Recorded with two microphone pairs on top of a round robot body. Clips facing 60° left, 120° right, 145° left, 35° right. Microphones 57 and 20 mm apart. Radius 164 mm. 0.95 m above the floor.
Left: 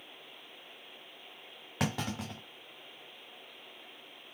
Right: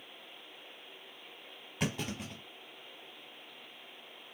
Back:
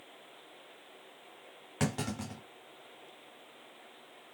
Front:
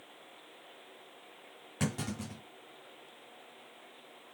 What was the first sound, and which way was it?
A clunk, 75° left.